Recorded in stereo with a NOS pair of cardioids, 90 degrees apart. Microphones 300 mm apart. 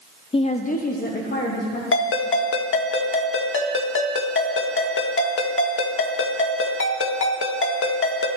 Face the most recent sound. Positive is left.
turn(degrees=45)